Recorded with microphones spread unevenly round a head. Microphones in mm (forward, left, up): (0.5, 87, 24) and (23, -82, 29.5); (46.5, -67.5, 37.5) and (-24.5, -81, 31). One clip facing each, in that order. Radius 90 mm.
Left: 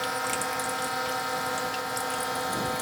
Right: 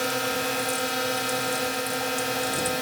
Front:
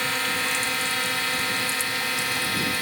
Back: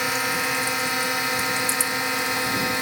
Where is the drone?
110° right; by 2.8 s 120° right.